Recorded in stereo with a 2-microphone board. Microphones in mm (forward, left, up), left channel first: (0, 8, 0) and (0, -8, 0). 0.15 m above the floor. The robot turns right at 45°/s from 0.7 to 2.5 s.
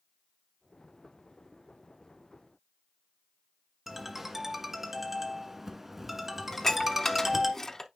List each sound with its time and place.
3.9 s a ringtone: 15° right (ahead or behind), 1.4 m
6.5 s dishes clattering: 25° left (ahead or behind), 0.8 m